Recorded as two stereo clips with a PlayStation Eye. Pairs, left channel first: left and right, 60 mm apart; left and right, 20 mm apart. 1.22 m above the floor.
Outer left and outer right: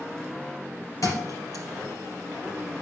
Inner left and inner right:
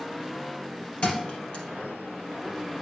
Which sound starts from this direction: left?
A thud, at 1.0 s.